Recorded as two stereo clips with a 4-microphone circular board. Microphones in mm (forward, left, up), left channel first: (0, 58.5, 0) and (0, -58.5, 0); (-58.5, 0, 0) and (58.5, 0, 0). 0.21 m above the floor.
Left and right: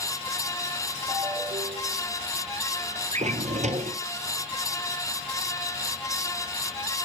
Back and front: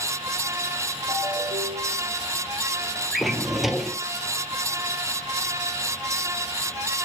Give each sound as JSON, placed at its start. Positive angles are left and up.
{"t": 1.1, "sound": "a ringtone", "azimuth_deg": -40, "distance_m": 8.0}
{"t": 3.1, "sound": "a drawer", "azimuth_deg": -90, "distance_m": 1.3}